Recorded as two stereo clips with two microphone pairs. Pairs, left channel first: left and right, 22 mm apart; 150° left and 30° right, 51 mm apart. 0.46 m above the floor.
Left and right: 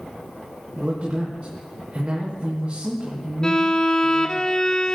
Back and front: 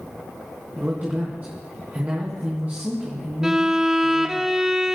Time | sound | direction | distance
0.8 | a man speaking | 80° right | 4 m
3.4 | a violin | 55° left | 0.8 m